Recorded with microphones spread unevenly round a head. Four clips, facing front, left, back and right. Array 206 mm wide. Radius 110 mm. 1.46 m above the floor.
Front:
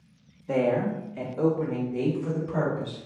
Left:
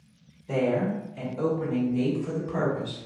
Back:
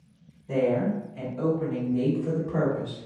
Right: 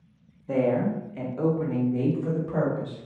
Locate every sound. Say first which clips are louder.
0.5 s a woman speaking: right 2 dB, even; 10° right, 0.9 m; by 3.0 s 65° right, 2.5 m